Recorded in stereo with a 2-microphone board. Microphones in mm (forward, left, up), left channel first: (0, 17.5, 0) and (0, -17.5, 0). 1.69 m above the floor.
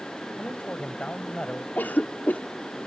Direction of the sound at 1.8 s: 55° left (ahead or behind).